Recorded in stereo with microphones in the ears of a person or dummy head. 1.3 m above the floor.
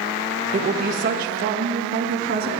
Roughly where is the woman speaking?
Right.